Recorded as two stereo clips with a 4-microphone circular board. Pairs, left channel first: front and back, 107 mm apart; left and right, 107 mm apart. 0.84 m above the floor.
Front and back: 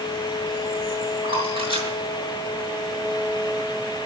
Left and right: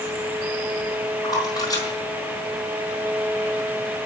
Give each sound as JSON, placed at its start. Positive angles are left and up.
{"t": 1.2, "sound": "a splash", "azimuth_deg": 145, "distance_m": 5.0}